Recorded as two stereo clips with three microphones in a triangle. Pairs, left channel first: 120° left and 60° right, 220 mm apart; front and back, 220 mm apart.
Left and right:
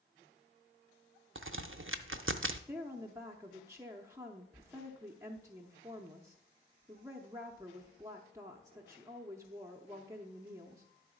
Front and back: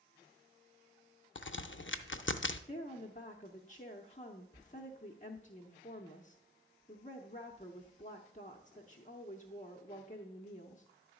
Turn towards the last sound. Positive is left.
turn(degrees=5)